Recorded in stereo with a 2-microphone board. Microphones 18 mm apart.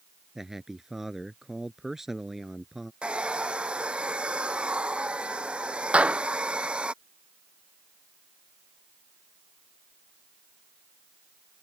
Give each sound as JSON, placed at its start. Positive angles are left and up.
{"t": 0.3, "sound": "a man speaking", "side_deg": -20}
{"t": 3.0, "sound": "a hair dryer", "side_deg": -60}
{"t": 5.9, "sound": "a clap", "side_deg": -80}